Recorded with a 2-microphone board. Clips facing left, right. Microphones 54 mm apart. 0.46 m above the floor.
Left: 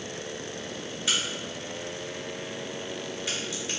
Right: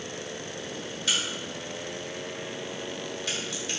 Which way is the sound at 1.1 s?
20° left (ahead or behind).